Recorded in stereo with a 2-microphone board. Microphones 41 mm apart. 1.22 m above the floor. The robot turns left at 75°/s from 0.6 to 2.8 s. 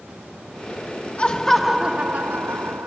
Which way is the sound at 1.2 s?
35° left.